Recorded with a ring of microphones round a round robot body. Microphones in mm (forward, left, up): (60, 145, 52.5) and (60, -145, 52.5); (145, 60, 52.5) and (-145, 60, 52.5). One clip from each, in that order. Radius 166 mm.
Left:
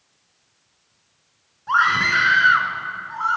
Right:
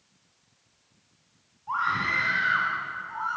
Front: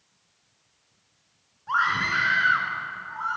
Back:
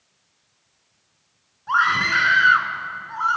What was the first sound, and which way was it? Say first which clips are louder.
A scream: left 9 dB, back 5 dB; 115° left.